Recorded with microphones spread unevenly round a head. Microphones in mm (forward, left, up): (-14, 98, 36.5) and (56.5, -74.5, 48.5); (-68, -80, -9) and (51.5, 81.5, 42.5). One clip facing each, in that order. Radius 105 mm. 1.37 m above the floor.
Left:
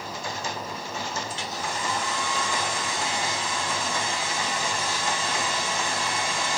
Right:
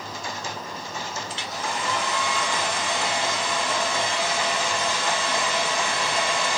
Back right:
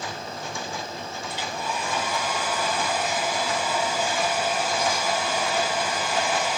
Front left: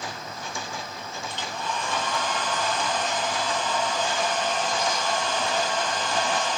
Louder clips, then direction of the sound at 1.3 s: Right 1 dB, back right 1 dB; 40° right.